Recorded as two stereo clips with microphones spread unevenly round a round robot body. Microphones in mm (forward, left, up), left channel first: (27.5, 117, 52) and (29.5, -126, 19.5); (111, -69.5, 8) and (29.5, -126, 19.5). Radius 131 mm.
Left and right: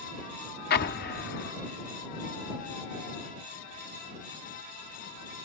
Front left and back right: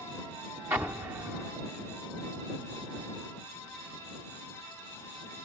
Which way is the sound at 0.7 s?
140° left.